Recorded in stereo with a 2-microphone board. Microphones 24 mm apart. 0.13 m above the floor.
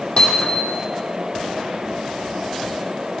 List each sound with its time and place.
0.2 s hammering: 40° left (ahead or behind), 3.5 m